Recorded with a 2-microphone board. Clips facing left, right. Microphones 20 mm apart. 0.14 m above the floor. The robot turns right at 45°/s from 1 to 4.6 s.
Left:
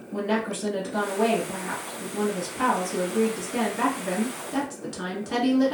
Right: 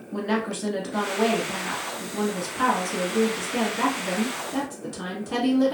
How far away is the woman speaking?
About 1.5 m.